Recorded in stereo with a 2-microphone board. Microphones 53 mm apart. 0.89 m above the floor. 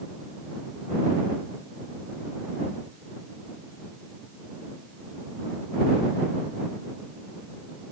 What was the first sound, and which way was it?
Only background noise.